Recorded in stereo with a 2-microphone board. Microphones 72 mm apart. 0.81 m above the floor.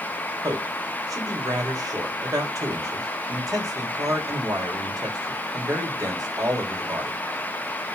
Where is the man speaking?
55° right (ahead or behind), 3.5 m.